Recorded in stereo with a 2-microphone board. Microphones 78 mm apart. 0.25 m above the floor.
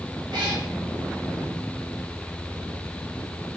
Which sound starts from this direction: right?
A cat meowing, at 0.3 s.